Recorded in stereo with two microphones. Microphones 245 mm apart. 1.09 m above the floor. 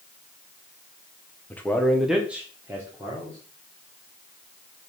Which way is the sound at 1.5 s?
5° left (ahead or behind).